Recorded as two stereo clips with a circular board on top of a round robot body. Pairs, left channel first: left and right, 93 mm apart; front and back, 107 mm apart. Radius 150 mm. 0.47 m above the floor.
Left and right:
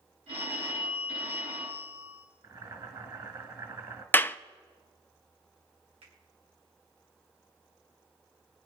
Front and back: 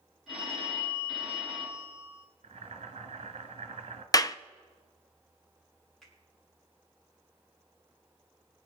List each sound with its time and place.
0.3 s a phone ringing: 95° right, 5 m
2.4 s boiling: 140° right, 1.3 m
4.1 s a clap: 35° left, 0.7 m
6.0 s a finger snap: 85° right, 6.5 m